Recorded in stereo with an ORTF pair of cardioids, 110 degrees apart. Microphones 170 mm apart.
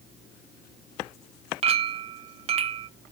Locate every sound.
1.6 s a clink: 35° right, 0.6 m